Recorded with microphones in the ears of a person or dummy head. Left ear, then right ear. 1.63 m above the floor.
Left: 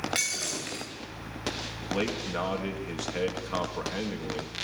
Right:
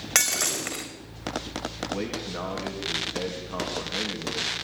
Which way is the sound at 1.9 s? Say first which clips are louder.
Left 5 dB; 90° left.